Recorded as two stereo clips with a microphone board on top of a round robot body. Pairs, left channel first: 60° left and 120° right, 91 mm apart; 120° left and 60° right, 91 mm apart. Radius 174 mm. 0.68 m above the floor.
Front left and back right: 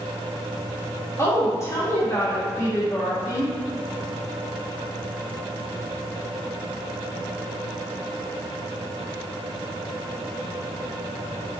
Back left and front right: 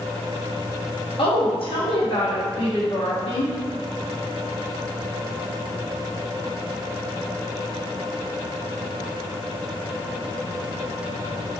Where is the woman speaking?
120° left, 1.3 m.